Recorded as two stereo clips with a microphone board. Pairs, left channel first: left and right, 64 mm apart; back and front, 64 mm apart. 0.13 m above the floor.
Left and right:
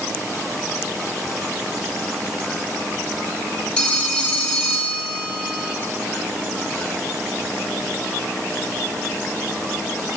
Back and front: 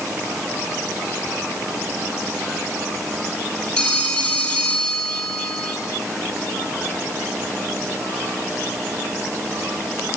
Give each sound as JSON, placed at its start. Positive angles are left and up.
{"t": 3.8, "sound": "a phone ringing", "azimuth_deg": 135, "distance_m": 0.7}